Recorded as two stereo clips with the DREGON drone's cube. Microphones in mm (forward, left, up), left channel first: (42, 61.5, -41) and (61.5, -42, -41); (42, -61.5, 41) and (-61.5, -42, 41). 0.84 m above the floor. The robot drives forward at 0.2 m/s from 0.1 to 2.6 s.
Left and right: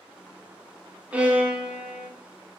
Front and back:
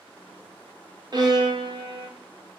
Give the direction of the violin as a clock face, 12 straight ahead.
5 o'clock.